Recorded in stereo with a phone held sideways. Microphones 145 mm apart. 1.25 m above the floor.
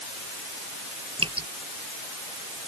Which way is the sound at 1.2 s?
35° right (ahead or behind).